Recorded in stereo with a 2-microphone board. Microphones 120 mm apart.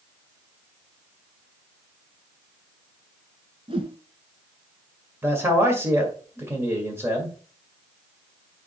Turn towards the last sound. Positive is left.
turn(degrees=-20)  # may be behind; listen again after turning